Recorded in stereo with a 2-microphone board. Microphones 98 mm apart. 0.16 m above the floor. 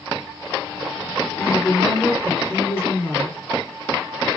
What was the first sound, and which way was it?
A woman speaking, 25° left (ahead or behind).